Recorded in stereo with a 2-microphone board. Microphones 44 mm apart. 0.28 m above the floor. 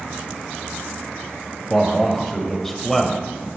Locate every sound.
1.7 s a man speaking: 5° left (ahead or behind), 0.9 m